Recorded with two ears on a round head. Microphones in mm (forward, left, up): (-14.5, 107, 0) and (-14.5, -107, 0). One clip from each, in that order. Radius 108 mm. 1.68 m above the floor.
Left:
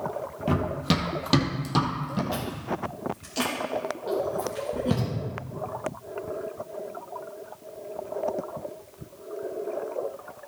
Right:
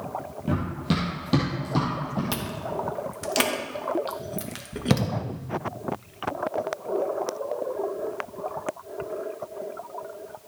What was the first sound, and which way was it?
Running footsteps, 35° left (ahead or behind).